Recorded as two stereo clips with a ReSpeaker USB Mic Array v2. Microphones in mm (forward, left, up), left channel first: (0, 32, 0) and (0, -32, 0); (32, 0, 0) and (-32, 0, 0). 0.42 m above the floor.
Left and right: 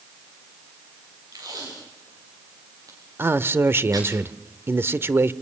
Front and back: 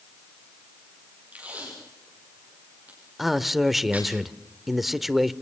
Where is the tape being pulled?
110° right, 9 m.